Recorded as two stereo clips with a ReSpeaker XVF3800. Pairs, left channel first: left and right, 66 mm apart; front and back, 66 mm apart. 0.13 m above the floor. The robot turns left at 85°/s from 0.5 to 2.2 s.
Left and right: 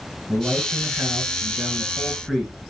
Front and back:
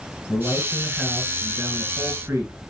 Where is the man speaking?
35° right, 2 m; by 2.5 s straight behind, 2 m.